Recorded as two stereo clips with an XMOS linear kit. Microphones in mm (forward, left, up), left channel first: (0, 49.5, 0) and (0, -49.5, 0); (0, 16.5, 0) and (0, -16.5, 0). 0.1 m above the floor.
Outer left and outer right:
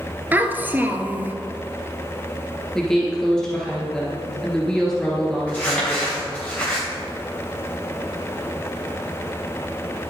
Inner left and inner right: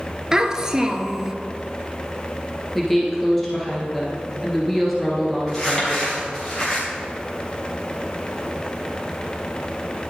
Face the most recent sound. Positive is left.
turn(degrees=10)  # may be behind; listen again after turning